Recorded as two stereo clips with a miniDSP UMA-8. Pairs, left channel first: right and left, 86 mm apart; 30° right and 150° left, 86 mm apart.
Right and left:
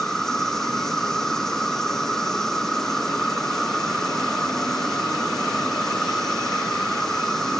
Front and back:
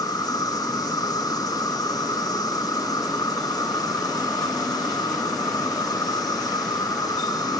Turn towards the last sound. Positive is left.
turn(degrees=-10)